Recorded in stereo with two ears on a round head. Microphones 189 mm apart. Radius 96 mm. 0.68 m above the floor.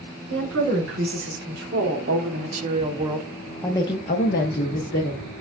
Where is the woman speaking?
60° right (ahead or behind), 1.9 m; by 5.3 s 65° left (ahead or behind), 1.1 m.